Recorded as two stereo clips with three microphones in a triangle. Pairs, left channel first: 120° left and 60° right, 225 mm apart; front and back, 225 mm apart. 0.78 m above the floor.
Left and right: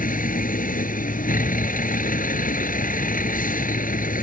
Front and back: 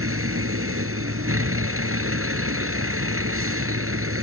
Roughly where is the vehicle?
Behind.